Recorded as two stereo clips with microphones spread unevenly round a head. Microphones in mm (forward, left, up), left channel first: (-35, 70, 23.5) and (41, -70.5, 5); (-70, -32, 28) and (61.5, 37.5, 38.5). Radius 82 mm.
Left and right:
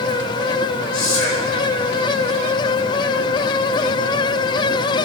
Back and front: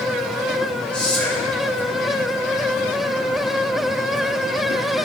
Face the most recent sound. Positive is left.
turn(degrees=125)